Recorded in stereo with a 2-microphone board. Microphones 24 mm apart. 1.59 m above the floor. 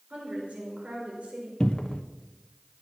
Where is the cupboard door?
40° left (ahead or behind), 0.8 m.